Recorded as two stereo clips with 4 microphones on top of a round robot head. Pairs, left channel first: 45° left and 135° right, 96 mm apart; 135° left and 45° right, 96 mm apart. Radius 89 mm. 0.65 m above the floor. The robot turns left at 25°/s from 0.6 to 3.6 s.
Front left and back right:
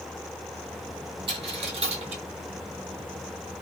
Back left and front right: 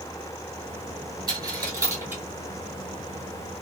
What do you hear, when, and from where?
1.3 s a dropped coin: 90° right, 1.1 m; by 2.2 s 115° right, 1.1 m